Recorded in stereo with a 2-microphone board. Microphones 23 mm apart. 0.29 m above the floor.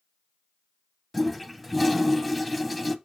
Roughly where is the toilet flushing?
Centre.